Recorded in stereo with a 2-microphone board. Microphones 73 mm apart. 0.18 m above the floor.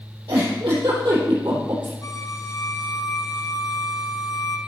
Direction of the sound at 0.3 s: 80° right.